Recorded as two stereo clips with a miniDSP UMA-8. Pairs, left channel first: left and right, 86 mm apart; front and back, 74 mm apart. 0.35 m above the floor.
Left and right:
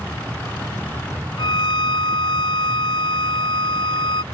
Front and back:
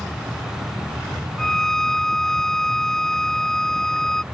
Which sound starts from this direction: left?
A violin, at 1.4 s.